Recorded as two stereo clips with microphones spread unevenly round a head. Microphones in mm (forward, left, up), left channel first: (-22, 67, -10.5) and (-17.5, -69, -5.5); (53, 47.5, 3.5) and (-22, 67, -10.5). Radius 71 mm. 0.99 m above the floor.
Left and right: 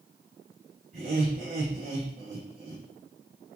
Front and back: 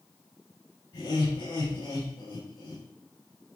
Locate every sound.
0.9 s laughter: 50° right, 6 m